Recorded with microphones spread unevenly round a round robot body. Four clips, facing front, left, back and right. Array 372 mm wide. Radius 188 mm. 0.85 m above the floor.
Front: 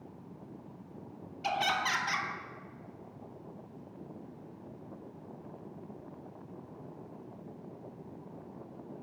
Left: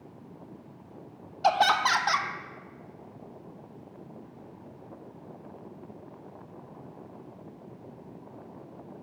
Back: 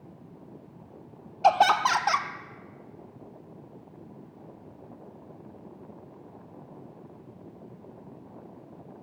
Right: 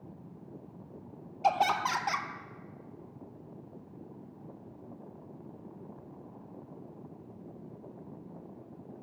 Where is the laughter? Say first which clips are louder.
Left 4 dB, back 12 dB; 160° left, 0.7 m.